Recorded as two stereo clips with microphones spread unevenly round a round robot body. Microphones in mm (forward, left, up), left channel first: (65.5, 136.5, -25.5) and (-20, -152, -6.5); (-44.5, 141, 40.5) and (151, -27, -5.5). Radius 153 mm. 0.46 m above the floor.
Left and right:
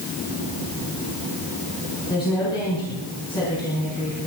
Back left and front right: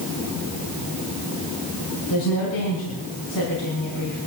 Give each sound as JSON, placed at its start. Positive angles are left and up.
{"t": 2.1, "sound": "a woman speaking", "azimuth_deg": 150, "distance_m": 5.5}